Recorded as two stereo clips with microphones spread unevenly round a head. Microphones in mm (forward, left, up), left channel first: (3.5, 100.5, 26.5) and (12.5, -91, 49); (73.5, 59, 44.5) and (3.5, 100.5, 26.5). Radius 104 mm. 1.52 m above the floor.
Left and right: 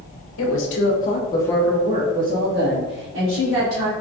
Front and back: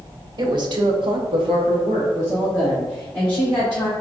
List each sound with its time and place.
0.4 s a woman speaking: 115° left, 0.9 m; by 3.9 s 105° right, 1.7 m